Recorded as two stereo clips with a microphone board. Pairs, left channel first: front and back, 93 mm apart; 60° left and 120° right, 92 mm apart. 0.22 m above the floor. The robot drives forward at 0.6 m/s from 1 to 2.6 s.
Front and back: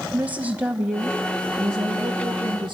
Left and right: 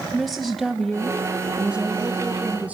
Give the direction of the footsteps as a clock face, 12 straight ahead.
I don't hear footsteps.